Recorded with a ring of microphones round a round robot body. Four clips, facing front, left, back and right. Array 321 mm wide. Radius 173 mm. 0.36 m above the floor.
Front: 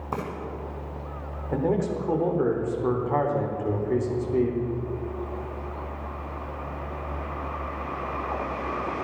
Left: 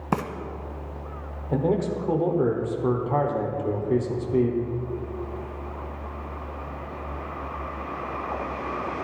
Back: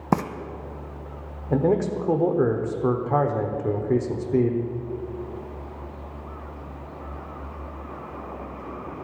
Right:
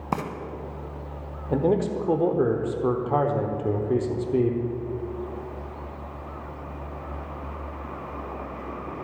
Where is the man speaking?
150° right, 1.2 m.